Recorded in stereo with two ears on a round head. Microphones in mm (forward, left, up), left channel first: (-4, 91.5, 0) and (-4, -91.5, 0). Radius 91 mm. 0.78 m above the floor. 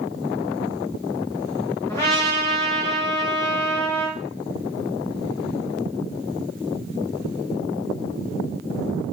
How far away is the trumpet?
About 1.7 m.